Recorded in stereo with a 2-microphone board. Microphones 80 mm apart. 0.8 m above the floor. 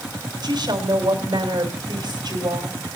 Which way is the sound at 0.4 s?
65° right (ahead or behind).